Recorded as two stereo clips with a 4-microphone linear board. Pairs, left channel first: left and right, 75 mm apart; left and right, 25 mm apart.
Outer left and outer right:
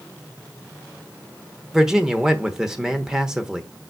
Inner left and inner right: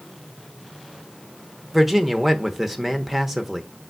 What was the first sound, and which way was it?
A man speaking, 10° right (ahead or behind).